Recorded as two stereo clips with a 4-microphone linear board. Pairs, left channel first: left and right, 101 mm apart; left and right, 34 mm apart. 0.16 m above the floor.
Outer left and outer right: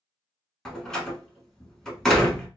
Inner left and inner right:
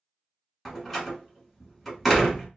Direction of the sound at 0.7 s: 5° left (ahead or behind).